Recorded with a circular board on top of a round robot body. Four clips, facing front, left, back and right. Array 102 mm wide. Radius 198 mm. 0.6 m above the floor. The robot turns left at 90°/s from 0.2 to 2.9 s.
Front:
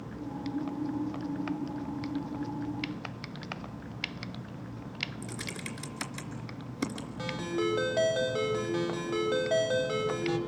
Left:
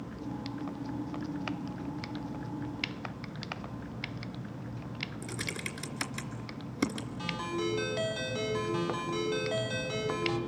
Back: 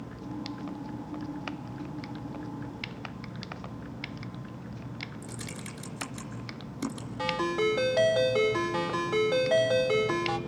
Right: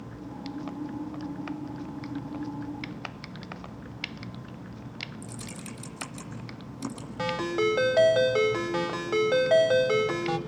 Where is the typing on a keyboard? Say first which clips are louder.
Left 1 dB, front 1 dB; 65° left, 3 m.